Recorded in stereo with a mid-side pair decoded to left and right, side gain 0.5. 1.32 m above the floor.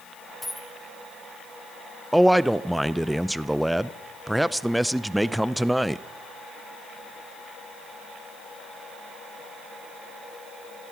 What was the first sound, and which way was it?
A dropped coin, 10° left.